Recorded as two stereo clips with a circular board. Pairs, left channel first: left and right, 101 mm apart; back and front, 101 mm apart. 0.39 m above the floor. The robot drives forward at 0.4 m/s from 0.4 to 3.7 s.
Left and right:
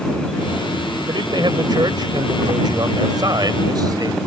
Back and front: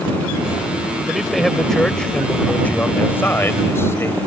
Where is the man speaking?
85° right; by 4.2 s 120° right.